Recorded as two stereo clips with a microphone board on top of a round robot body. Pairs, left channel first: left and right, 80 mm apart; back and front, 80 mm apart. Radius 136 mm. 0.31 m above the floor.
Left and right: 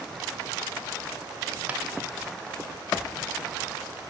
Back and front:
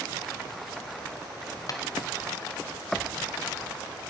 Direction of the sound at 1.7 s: 155° right.